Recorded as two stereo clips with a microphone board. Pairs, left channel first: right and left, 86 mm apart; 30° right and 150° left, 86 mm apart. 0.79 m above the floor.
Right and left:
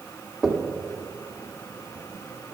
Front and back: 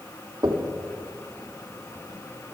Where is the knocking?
Straight behind, 1.3 m.